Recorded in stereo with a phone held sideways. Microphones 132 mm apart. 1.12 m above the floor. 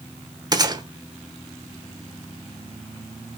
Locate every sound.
0.5 s a gunshot: 30° right (ahead or behind), 1.0 m